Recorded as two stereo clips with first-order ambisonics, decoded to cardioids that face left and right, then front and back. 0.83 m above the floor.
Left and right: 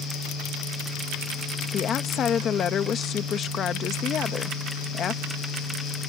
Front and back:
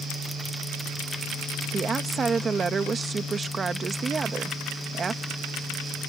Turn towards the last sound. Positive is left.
turn(degrees=125)